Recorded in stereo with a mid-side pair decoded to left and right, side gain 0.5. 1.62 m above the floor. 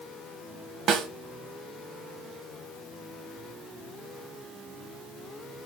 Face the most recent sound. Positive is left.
turn(degrees=-60)